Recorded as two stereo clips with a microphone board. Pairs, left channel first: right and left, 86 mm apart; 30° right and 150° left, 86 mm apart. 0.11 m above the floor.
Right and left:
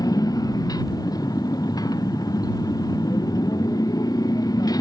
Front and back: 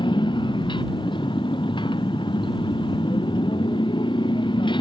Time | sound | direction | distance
0.0 | a motorcycle | 50° right | ?